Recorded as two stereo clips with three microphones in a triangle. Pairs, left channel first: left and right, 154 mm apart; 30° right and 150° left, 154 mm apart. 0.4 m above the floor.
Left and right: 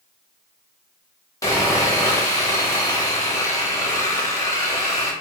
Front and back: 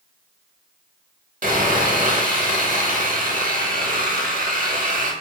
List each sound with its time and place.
1.4 s sawing: 155° left, 0.7 m